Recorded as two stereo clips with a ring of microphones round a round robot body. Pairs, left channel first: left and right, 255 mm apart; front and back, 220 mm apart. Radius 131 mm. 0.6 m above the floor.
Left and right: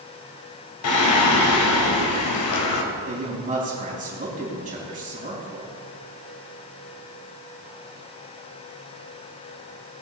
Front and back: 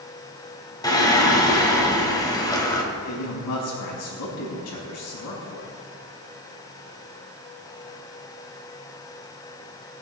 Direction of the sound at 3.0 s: 30° right.